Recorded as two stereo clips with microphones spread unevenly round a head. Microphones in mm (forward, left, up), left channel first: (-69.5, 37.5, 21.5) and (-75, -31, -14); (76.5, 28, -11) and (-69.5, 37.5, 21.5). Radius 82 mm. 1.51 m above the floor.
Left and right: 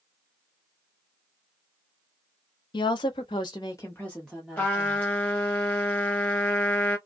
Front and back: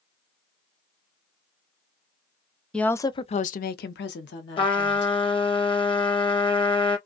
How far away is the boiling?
No boiling in this recording.